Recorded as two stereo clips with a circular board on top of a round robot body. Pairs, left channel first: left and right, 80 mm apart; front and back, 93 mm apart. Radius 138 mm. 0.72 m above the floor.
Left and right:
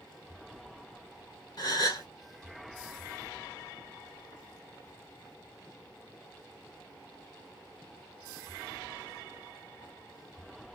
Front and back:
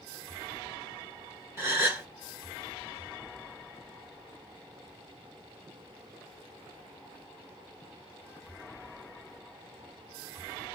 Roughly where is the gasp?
Behind left.